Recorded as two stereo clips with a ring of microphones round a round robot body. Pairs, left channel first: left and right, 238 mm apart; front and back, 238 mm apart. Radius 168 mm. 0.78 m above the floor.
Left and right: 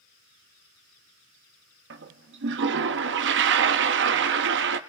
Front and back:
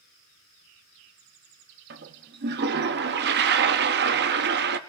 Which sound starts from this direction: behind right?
A toilet flushing, at 1.9 s.